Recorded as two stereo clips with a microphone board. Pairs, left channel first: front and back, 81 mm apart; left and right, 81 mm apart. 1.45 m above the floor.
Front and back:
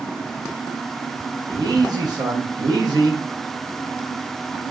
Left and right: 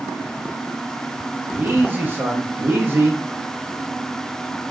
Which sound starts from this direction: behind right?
A man speaking, at 1.5 s.